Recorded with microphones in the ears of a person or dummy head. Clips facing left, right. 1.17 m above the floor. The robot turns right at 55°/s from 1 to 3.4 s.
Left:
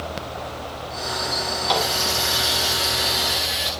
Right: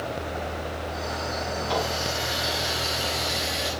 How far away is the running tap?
About 6 m.